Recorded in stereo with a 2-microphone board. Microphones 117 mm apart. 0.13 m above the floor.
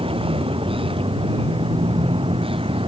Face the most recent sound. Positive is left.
turn(degrees=-50)  # may be behind; listen again after turning